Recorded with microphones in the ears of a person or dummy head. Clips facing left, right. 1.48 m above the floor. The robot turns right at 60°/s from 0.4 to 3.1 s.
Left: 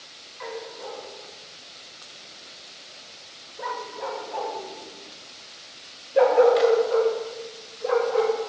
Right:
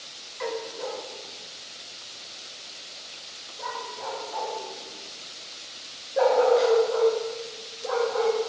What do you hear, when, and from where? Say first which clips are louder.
0.4 s a dog barking: right 4 dB; 35° right (ahead or behind), 1.0 m; by 8.4 s 35° left (ahead or behind), 1.0 m